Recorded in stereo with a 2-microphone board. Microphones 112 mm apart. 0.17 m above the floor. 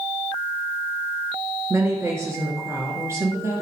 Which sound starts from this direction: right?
A woman speaking, at 1.7 s.